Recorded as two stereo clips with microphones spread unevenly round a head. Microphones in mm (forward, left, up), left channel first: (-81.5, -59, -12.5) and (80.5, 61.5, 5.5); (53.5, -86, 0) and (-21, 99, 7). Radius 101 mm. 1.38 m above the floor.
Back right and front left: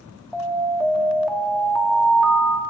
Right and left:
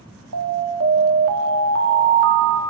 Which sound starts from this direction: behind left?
An alarm, at 0.3 s.